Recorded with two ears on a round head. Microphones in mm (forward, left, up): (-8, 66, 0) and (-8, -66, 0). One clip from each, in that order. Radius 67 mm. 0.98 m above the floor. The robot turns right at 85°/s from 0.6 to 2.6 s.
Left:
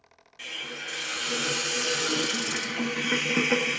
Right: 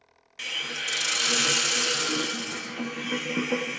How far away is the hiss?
About 0.5 m.